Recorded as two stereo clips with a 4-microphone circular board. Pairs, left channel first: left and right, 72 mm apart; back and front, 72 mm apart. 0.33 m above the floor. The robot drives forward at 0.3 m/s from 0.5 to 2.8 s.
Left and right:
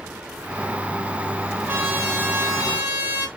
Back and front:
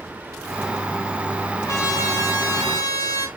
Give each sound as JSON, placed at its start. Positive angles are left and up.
{"t": 1.7, "sound": "a trumpet", "azimuth_deg": -150, "distance_m": 2.0}